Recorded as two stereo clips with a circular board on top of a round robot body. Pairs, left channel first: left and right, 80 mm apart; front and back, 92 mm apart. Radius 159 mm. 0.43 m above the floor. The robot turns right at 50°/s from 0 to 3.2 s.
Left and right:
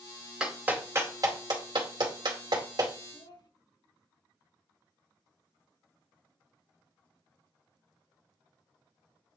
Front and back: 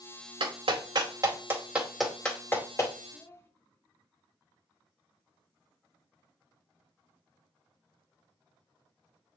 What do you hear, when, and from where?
0.4 s a clap: 170° right, 2 m; by 2.9 s 45° right, 2 m
3.1 s a child speaking: 60° left, 1.2 m